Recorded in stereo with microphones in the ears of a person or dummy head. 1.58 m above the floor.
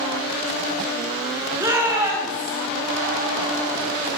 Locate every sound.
1.6 s a shout: 15° right (ahead or behind), 7 m; by 2.6 s 20° right (ahead or behind), 8.5 m